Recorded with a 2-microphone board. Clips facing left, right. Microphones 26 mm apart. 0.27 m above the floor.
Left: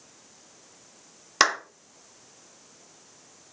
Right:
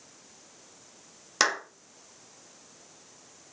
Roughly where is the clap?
Left.